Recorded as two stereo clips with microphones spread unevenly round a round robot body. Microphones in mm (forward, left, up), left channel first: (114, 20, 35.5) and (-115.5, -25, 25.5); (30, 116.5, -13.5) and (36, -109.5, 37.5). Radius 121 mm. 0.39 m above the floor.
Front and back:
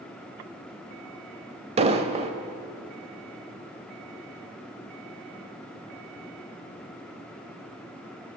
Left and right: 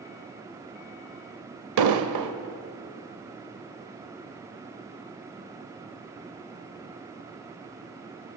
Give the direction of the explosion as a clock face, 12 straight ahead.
3 o'clock.